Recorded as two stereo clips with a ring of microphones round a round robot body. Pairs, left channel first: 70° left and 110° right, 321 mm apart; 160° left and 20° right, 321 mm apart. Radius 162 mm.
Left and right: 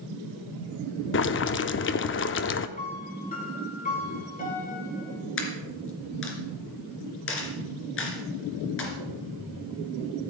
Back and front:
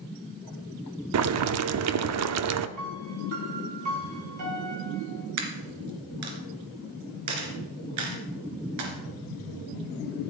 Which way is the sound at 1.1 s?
15° left.